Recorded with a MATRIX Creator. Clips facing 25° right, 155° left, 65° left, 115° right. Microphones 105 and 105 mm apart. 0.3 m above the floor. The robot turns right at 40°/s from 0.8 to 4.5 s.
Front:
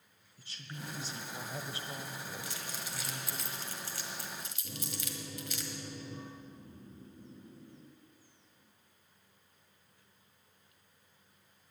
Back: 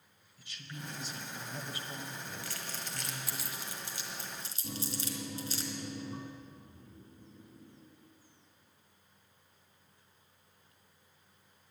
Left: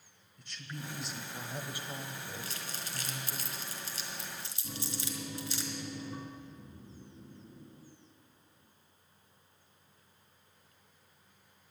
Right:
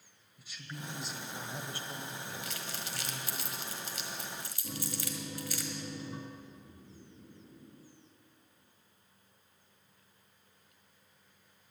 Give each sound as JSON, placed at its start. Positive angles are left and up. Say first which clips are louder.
{"t": 0.4, "sound": "a woman speaking", "louder": "even, left 1 dB", "azimuth_deg": -35, "distance_m": 1.1}
{"t": 2.4, "sound": "crumpling", "louder": "even, right 1 dB", "azimuth_deg": 35, "distance_m": 1.5}
{"t": 4.6, "sound": "a microwave", "louder": "back 6 dB, right 1 dB", "azimuth_deg": 155, "distance_m": 2.0}
{"t": 6.3, "sound": "snoring", "louder": "front 1 dB, left 1 dB", "azimuth_deg": 25, "distance_m": 1.0}